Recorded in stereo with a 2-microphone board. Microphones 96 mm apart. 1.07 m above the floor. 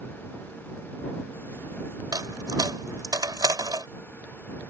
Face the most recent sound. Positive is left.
turn(degrees=-45)  # may be behind; listen again after turning